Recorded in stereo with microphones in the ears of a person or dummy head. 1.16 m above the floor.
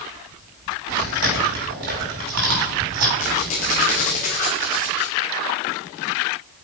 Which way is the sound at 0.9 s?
75° right (ahead or behind).